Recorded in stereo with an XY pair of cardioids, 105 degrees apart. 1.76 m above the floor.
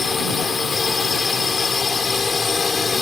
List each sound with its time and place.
0.0 s a drone: 30° left